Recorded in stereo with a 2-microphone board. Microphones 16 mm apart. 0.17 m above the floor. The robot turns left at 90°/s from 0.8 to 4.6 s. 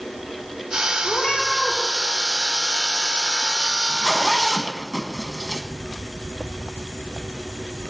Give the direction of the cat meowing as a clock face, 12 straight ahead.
9 o'clock.